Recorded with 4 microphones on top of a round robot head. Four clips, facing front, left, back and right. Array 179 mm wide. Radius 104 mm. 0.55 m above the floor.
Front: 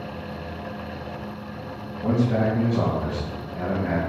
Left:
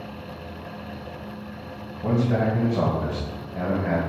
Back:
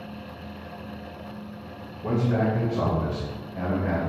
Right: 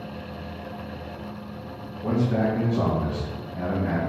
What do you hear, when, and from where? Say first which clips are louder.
2.0 s a man speaking: left 1 dB, front 2 dB; 60° left, 3 m; by 4.0 s 75° left, 2.0 m